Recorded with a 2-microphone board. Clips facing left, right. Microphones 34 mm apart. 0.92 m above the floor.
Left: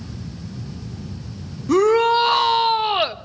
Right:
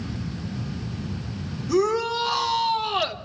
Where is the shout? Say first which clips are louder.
Left 7 dB; 60° left (ahead or behind), 1.4 m; by 3.2 s 30° left (ahead or behind), 1.1 m.